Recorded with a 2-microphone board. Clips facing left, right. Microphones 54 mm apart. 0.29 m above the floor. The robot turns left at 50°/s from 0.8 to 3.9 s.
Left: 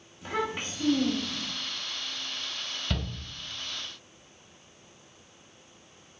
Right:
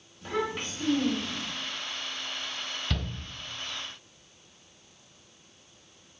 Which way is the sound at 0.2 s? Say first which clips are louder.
Even; 10° left (ahead or behind).